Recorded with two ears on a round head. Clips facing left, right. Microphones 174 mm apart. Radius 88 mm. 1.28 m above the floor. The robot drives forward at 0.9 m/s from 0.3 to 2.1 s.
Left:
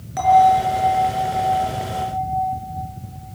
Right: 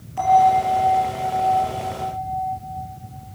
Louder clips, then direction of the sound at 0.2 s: Left 2 dB; 80° left.